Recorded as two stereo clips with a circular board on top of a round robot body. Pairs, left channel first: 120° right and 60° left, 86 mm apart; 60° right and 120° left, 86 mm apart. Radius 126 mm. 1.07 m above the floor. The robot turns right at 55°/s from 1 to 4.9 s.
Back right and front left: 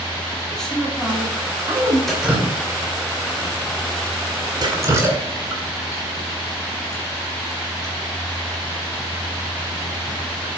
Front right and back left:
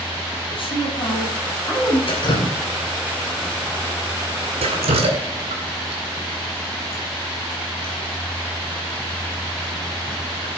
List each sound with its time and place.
0.5 s a woman speaking: 35° right, 3.5 m; by 2.0 s 20° left, 3.5 m
2.1 s dripping: 35° right, 2.5 m; by 10.5 s 125° left, 2.5 m